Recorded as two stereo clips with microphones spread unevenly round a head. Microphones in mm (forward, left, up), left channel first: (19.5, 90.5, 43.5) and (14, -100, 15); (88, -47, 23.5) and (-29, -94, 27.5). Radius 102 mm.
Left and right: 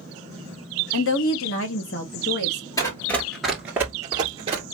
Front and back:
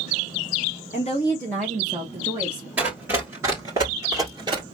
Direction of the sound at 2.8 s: 135° left.